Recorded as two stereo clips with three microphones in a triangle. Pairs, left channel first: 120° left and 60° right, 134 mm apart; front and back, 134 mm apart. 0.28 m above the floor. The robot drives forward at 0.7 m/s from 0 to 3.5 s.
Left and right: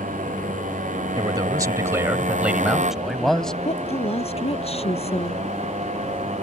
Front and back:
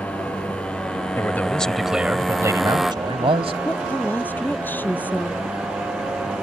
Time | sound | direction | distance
0.0 | a motorcycle | 80° right | ?
1.2 | a man speaking | 50° right | ?
3.6 | a woman speaking | 75° left | ?